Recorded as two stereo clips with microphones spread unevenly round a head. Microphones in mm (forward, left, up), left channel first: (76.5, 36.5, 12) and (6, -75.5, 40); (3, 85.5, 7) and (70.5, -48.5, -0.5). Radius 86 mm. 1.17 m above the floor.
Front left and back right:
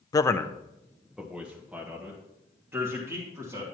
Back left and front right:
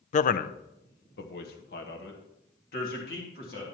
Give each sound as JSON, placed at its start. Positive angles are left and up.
{"t": 0.1, "sound": "a man speaking", "azimuth_deg": 95, "distance_m": 0.5}